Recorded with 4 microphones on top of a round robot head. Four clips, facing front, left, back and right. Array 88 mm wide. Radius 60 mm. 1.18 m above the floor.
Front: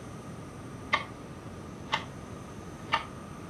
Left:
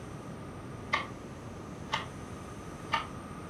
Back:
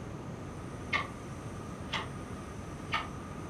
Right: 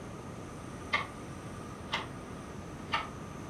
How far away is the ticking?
About 1.7 m.